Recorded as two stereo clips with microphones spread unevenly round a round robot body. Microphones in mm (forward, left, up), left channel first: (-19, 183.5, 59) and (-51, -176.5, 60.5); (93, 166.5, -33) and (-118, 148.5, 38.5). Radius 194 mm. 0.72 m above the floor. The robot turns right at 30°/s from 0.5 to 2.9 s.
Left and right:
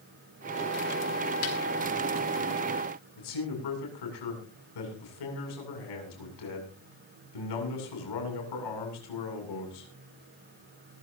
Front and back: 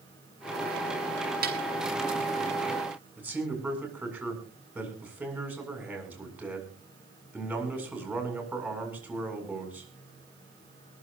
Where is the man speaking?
100° left, 7.5 m.